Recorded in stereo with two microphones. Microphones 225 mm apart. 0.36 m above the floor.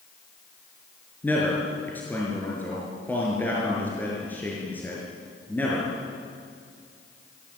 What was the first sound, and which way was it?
A man speaking, 10° left (ahead or behind).